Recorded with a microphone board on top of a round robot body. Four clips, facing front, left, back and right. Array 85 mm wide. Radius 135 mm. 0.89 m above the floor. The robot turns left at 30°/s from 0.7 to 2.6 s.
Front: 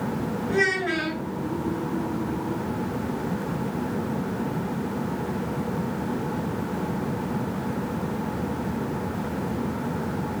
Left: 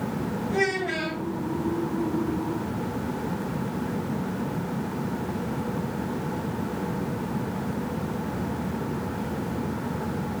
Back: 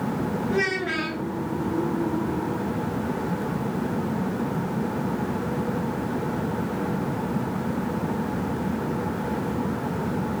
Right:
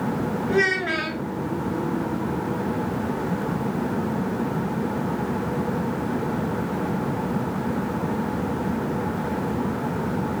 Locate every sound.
0.5 s a child speaking: 80° right, 3 m; by 1.2 s 95° right, 3 m